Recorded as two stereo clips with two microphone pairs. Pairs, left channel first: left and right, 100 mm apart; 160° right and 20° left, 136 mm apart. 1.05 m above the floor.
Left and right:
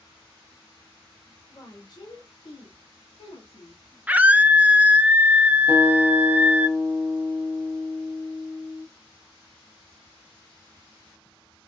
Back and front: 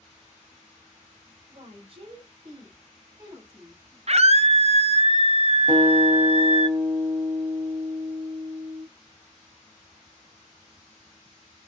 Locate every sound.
1.5 s a woman speaking: 45° left, 1.2 m; by 4.0 s 95° left, 2 m
4.1 s a scream: 15° right, 0.5 m
5.7 s a guitar: 80° left, 1.9 m